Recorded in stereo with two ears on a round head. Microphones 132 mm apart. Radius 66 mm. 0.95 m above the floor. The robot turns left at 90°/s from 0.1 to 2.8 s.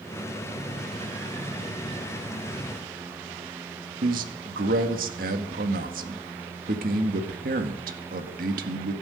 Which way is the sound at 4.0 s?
65° right (ahead or behind).